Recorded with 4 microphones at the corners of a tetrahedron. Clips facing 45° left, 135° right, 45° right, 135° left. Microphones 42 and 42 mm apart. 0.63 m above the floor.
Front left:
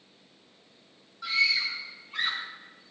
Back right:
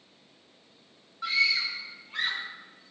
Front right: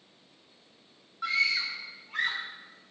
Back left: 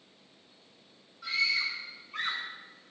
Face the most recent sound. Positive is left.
turn(degrees=-70)